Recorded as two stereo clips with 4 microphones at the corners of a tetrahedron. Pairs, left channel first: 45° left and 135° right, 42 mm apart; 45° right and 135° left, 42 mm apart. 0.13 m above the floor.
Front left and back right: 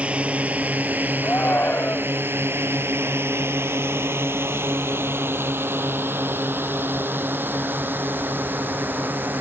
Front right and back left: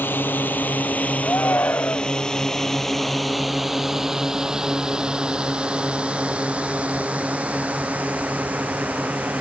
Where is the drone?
75° right; by 9.4 s 175° right.